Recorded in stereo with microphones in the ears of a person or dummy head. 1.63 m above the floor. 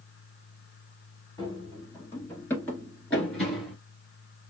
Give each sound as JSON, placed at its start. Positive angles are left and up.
{"t": 1.4, "sound": "running footsteps", "side_deg": 15, "distance_m": 1.9}